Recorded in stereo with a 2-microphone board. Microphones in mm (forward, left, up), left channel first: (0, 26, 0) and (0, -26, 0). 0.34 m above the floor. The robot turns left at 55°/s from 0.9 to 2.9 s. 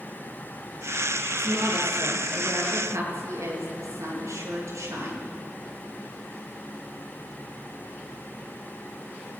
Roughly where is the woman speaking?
Ahead.